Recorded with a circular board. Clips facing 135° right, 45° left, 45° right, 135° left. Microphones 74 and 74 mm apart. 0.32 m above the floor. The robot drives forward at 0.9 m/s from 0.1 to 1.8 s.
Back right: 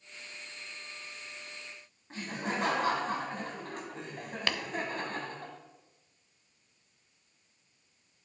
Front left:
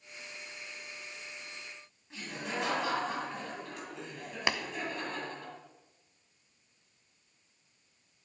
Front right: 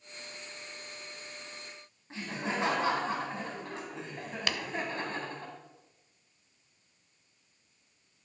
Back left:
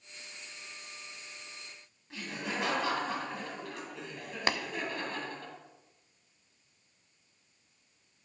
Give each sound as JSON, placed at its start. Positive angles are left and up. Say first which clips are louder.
{"t": 2.1, "sound": "laughter", "louder": "back right 3 dB, front right 3 dB", "azimuth_deg": -100, "distance_m": 2.5}
{"t": 4.5, "sound": "tapping", "louder": "front left 2 dB, back left 4 dB", "azimuth_deg": 105, "distance_m": 0.5}